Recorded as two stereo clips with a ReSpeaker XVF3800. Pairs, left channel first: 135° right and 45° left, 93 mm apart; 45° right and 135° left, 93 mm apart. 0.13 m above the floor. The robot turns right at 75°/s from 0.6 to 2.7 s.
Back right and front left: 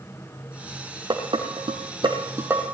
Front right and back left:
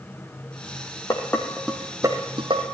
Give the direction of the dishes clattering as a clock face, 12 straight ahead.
12 o'clock.